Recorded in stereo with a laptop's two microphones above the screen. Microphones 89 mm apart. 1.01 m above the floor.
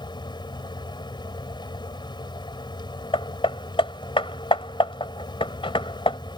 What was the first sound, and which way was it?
A fan, 60° left (ahead or behind).